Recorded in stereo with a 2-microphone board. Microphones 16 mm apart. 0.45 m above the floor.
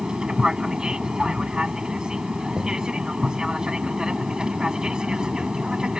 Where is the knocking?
55° right (ahead or behind).